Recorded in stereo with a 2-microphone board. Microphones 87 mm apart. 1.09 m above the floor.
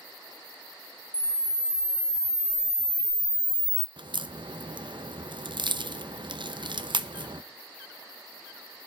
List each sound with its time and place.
1.1 s a camera shutter: 15° left (ahead or behind), 0.9 m
4.0 s a crack: 60° right (ahead or behind), 0.6 m